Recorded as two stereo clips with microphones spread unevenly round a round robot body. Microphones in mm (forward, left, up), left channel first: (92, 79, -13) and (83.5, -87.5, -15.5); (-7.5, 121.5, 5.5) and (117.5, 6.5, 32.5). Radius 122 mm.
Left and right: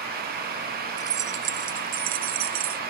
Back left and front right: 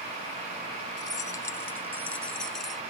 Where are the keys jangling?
145° right; by 2.8 s 130° right.